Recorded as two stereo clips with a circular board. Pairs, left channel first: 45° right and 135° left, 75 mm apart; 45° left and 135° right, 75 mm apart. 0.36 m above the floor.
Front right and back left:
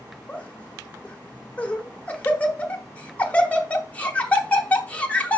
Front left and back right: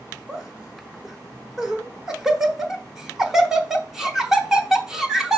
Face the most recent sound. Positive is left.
turn(degrees=-65)